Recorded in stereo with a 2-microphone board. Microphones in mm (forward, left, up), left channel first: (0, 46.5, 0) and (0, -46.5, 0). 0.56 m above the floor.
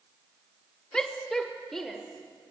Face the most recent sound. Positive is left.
turn(degrees=0)  # may be behind; listen again after turning